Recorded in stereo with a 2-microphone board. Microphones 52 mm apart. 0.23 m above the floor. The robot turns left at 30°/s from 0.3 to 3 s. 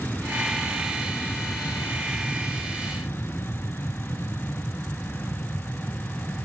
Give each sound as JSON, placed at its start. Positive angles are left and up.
{"t": 0.0, "sound": "an aircraft", "azimuth_deg": 140}